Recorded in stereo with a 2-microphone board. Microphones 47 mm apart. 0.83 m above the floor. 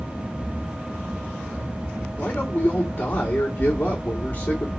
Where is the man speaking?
40° left (ahead or behind), 2.5 m.